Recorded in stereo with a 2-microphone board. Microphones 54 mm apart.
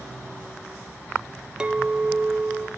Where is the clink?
15° right (ahead or behind), 0.5 m.